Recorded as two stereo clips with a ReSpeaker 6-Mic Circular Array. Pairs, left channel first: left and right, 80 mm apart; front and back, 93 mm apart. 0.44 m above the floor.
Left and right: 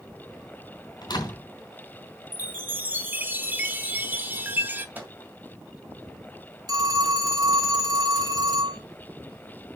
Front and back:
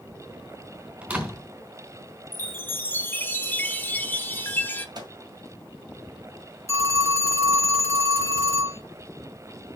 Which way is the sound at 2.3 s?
50° right.